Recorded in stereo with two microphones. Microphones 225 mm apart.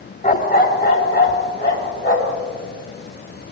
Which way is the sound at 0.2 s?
35° left (ahead or behind).